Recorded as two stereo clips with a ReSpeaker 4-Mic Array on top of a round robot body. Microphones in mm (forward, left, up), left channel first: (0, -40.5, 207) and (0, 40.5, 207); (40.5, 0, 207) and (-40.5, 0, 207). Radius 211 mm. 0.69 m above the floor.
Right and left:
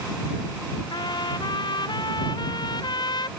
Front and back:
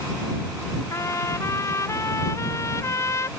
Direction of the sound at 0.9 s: 55° right.